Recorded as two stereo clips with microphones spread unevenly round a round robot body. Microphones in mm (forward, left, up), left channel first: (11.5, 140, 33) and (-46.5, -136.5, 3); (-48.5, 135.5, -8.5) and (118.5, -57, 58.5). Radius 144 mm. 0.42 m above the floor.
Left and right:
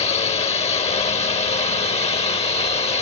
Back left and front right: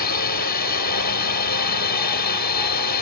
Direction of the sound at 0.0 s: 145° left.